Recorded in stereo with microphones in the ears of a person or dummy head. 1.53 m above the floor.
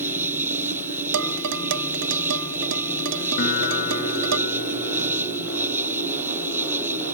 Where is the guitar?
45° left (ahead or behind).